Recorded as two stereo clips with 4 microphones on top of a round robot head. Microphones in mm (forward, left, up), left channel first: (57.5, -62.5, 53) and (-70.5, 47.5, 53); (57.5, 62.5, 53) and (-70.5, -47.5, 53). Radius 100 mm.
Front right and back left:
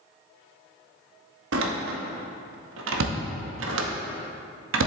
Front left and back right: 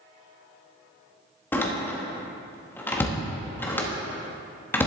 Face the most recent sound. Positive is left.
turn(degrees=120)